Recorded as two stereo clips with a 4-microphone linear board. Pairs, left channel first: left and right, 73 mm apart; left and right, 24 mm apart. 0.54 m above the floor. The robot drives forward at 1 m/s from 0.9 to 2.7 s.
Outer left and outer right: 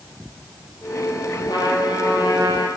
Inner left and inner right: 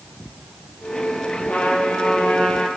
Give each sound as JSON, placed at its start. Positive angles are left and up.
{"t": 1.5, "sound": "a trumpet", "side_deg": 85, "distance_m": 7.0}